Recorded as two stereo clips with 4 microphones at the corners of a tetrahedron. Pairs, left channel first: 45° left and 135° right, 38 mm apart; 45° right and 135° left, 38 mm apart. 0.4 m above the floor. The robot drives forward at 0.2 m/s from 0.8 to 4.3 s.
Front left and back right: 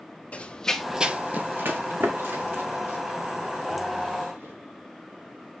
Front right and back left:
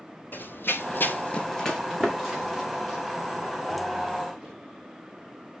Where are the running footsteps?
10° right, 1.2 m; by 4.5 s 145° right, 6 m.